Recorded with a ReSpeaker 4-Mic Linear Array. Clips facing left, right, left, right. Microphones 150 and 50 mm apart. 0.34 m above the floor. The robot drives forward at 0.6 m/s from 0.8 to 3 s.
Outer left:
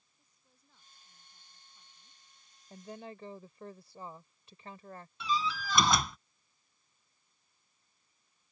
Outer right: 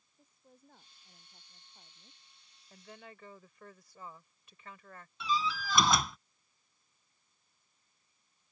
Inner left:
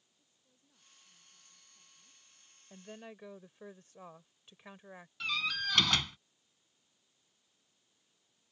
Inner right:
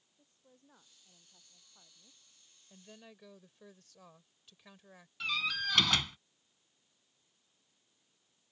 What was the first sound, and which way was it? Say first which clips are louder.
A woman speaking: outer right 12 dB, inner right 11 dB; 55° right (ahead or behind).